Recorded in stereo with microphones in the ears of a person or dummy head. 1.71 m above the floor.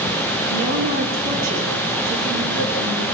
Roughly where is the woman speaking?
Right.